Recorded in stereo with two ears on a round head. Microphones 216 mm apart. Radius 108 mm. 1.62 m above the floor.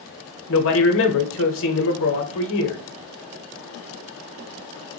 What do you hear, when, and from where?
0.5 s a man speaking: 60° left (ahead or behind), 0.7 m